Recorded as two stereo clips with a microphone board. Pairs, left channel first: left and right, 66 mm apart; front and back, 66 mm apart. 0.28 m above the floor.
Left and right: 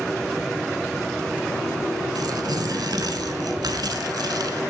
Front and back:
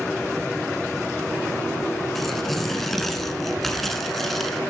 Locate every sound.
2.1 s tearing paper: 85° right, 0.7 m